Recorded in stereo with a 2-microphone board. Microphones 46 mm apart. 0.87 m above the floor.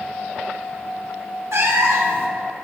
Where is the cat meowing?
80° right, 1.1 m.